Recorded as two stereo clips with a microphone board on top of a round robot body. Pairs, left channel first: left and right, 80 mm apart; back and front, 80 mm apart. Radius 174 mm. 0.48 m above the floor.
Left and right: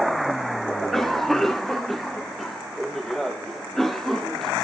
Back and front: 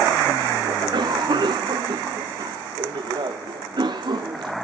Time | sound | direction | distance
0.7 | a cough | 5° left | 1.4 m